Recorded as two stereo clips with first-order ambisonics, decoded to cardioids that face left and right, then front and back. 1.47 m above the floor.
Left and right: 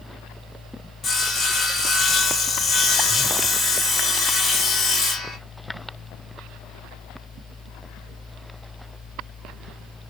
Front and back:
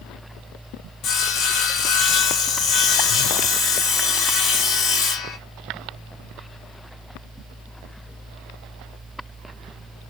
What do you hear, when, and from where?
1.0 s sawing: 30° left, 0.8 m